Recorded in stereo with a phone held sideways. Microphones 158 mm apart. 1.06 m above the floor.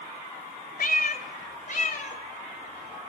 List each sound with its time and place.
0.8 s a cat meowing: 70° left (ahead or behind), 1.6 m; by 3.1 s 40° left (ahead or behind), 2.5 m